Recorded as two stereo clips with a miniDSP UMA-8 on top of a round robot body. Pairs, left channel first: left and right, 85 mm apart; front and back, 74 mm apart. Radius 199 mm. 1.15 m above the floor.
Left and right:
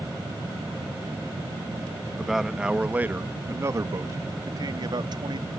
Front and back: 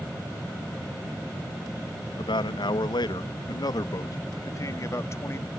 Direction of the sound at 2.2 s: Straight ahead.